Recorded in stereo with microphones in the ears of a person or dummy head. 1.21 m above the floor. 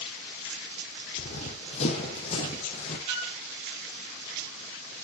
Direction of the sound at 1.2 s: 40° left (ahead or behind).